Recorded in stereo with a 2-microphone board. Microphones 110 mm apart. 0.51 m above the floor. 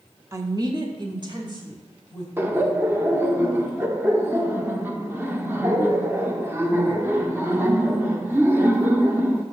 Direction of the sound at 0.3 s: 25° right (ahead or behind).